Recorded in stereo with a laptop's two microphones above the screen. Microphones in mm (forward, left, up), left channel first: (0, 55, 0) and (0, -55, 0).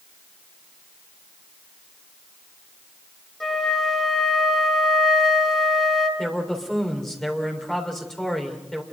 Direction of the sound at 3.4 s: 5° left (ahead or behind).